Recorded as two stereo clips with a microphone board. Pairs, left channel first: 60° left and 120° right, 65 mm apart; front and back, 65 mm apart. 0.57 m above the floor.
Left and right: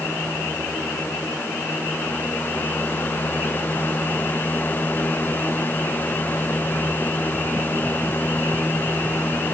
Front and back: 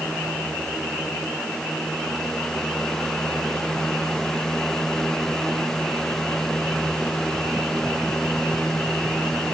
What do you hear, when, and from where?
Only background noise.